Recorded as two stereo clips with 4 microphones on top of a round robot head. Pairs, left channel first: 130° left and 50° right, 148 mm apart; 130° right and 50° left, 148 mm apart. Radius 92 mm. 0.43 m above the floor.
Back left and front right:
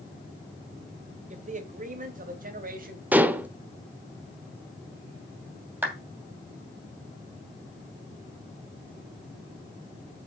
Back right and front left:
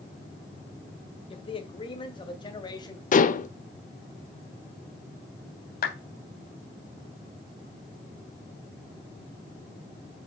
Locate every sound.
1.3 s a man speaking: 80° right, 1.8 m; by 3.0 s 65° right, 2.5 m
3.1 s dishes clattering: 130° right, 0.9 m
5.8 s a clap: 130° right, 2.5 m